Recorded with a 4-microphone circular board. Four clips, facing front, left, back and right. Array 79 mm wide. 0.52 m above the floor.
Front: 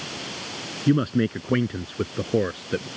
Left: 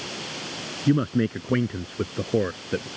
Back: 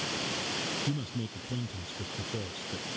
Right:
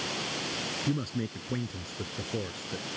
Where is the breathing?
No breathing in this recording.